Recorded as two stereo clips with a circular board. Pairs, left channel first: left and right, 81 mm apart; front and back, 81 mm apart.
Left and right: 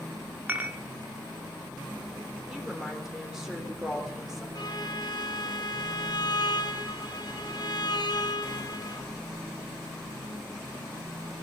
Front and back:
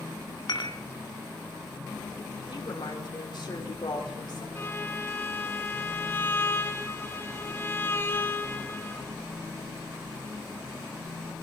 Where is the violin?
60° left, 1.7 m.